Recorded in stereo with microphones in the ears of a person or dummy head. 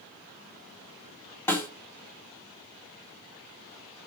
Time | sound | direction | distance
1.5 | a snare drum | 10° left (ahead or behind) | 2.5 m